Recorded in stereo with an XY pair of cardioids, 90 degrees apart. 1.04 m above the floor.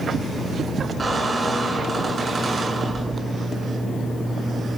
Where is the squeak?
35° right, 7 m.